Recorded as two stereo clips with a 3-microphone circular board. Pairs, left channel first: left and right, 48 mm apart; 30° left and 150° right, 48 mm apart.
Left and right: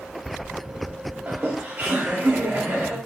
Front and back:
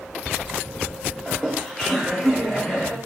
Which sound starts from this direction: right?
Laughter, at 1.3 s.